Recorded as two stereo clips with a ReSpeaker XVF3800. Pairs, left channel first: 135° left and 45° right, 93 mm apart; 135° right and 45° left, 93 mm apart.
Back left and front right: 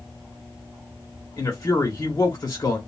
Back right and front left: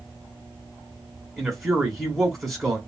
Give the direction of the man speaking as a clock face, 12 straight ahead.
8 o'clock.